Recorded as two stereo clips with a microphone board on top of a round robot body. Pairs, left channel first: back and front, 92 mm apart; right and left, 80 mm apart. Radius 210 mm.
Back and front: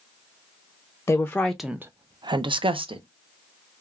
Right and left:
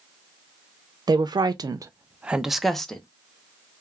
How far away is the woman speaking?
About 0.6 m.